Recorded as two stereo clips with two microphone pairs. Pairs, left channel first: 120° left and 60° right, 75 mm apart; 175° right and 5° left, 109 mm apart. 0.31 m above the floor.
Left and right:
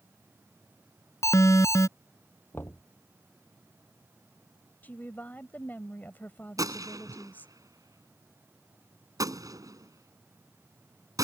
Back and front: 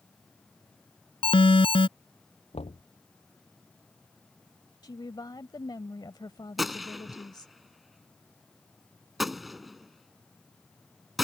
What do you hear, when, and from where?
1.2 s an alarm: 160° left
2.5 s knocking: straight behind
4.8 s a woman speaking: 170° left
6.6 s a gunshot: 85° right